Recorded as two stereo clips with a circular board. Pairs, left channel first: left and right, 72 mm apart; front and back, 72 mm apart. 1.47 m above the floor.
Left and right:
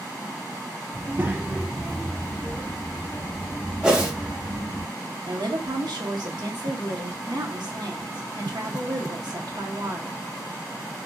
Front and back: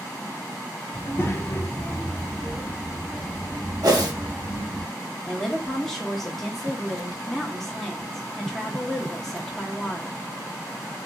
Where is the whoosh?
170° right, 0.8 m.